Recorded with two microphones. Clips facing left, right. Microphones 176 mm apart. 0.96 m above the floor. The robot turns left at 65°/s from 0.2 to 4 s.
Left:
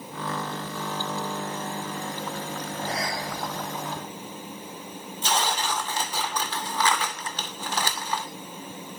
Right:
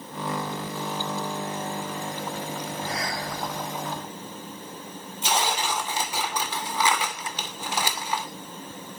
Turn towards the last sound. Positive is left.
turn(degrees=-10)  # may be behind; listen again after turning